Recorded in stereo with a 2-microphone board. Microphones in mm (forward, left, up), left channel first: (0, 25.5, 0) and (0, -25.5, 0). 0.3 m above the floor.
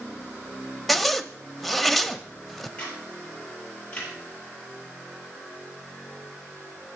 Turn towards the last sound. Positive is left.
turn(degrees=20)  # may be behind; listen again after turning